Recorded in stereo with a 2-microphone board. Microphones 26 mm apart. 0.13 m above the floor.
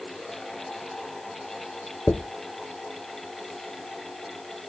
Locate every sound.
2.1 s a dropped coin: 85° left, 1.2 m